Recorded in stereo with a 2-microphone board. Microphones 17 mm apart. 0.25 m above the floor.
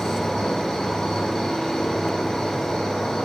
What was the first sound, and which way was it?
An insect, 50° left (ahead or behind).